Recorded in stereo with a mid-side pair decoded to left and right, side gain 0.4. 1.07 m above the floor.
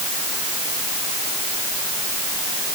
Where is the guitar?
No guitar in this recording.